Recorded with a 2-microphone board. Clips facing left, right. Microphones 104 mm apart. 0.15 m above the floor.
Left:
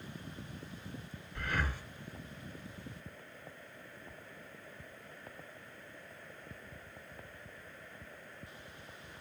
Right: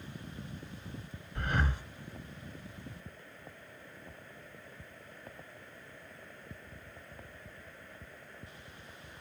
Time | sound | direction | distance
1.4 | breathing | 20° right (ahead or behind) | 1.2 m